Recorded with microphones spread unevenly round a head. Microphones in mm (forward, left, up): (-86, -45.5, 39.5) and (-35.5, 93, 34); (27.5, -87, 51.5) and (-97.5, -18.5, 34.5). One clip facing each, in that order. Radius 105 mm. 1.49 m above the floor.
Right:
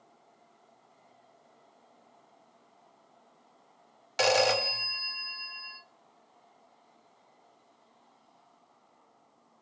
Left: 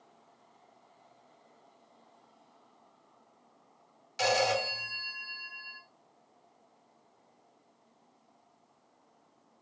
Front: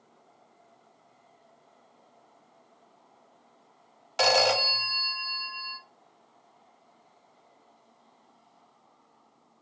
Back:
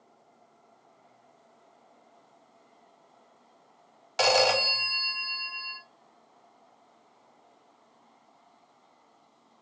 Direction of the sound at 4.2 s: 115° right.